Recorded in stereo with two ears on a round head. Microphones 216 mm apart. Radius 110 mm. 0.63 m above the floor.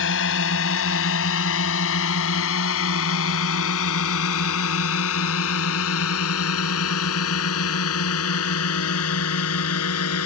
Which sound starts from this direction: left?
A drone, at 0.0 s.